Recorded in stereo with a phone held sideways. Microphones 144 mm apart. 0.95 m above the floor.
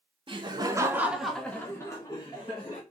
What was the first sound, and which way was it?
Laughter, 35° right (ahead or behind).